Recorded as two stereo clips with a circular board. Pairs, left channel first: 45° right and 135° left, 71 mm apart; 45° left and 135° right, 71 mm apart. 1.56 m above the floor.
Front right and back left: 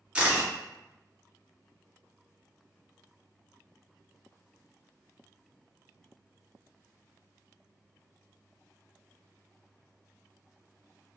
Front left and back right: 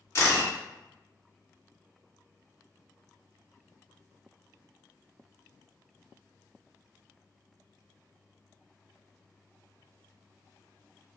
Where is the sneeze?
No sneeze in this recording.